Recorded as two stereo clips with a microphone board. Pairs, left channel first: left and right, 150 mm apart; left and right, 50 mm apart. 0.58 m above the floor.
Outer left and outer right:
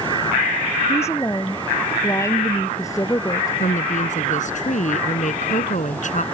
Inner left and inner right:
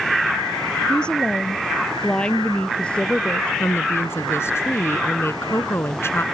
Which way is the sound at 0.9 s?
15° left (ahead or behind).